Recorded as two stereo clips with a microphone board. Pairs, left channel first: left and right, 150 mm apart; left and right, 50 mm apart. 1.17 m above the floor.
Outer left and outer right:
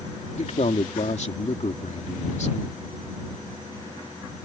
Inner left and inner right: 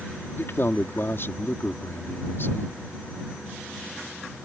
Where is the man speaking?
50° left (ahead or behind).